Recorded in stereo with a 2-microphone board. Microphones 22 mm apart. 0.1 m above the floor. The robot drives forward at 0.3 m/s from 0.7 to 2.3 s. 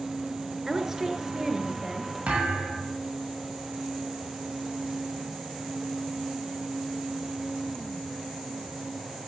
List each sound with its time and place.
0.7 s a woman speaking: 25° right (ahead or behind), 1.6 m
2.3 s a thud: 85° right, 7.5 m